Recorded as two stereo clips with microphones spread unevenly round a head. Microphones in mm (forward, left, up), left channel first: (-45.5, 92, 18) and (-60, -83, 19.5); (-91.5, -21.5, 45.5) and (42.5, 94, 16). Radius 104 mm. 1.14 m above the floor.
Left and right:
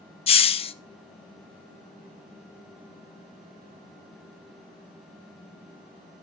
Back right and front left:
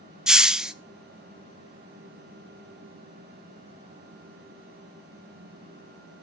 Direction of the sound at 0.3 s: 110° left.